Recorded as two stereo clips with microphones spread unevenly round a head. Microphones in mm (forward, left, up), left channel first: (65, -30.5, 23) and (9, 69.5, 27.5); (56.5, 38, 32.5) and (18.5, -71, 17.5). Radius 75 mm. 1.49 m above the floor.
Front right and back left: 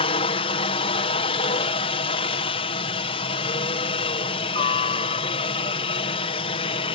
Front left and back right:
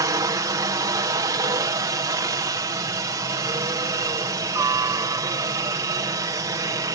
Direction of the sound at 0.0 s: 65° right.